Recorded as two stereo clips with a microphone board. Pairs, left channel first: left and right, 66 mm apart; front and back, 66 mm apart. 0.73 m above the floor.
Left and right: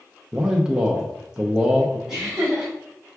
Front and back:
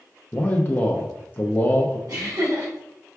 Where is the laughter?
170° right, 1.8 m.